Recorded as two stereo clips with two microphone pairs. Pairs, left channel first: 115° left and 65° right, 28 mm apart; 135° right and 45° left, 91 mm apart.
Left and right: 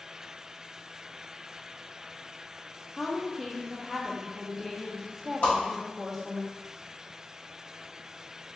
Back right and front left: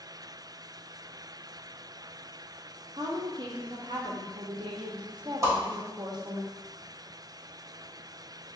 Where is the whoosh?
100° left, 1.5 m.